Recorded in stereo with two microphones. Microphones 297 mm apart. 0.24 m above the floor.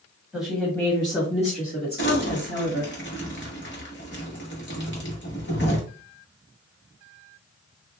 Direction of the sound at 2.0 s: 40° left (ahead or behind).